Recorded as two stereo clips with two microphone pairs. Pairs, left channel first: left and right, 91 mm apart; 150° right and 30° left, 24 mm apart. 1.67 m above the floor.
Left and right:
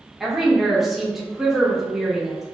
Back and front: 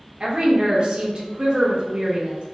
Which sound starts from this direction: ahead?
A woman speaking, at 0.2 s.